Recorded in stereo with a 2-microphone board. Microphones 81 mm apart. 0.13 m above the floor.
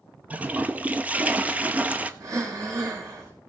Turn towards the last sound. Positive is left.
turn(degrees=-45)  # may be behind; listen again after turning